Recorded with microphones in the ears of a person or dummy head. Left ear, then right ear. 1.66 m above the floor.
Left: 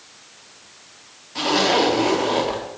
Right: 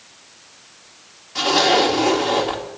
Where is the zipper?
5° right (ahead or behind), 1.6 m.